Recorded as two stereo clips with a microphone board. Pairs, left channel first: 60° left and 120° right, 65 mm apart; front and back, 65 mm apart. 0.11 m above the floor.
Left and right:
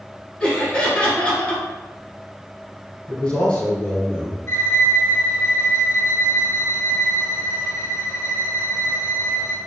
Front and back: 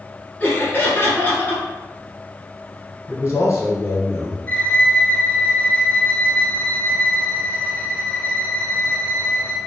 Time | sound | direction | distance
0.4 | laughter | 5° left | 1.2 m
3.1 | a man speaking | 5° left | 1.2 m
4.5 | a violin | 50° left | 0.7 m